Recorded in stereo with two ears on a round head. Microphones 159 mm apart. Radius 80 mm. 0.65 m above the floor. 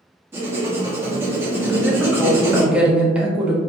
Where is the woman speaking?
5° right (ahead or behind), 0.5 m.